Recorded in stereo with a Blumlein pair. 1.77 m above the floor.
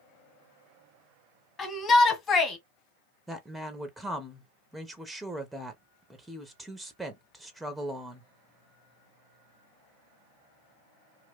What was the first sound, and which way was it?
A shout, 20° left.